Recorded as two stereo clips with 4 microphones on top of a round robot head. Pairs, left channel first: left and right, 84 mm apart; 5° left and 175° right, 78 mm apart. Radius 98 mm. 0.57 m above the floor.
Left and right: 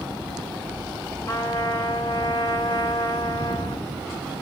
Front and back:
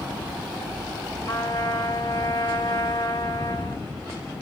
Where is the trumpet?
40° left, 2.5 m.